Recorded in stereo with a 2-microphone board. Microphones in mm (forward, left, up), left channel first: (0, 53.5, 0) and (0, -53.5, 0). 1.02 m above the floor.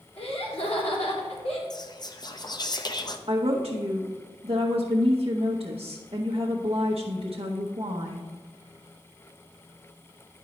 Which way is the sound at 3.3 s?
65° right (ahead or behind).